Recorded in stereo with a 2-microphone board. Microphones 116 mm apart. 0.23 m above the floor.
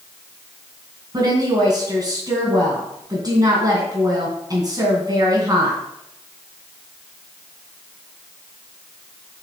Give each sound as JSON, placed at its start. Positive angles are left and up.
{"t": 1.1, "sound": "a woman speaking", "side_deg": -35, "distance_m": 2.5}